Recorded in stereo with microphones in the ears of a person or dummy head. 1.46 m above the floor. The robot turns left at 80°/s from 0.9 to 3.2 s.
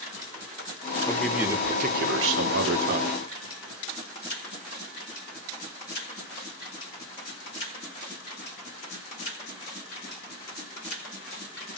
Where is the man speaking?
15° left, 5 m; by 3.2 s 155° right, 5 m.